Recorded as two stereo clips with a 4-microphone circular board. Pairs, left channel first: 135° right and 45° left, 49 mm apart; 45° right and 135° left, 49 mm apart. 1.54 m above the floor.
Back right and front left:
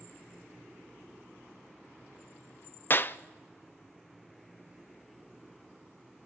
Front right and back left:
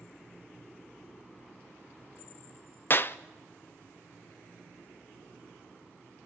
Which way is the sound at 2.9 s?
90° right.